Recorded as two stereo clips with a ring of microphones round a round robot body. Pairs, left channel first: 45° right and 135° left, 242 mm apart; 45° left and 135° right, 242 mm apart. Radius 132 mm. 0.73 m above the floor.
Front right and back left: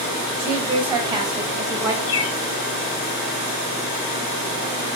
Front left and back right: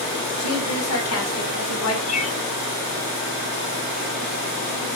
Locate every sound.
0.4 s a woman speaking: 70° left, 4 m; by 2.0 s 60° left, 3 m
2.1 s a bird: 15° right, 1.2 m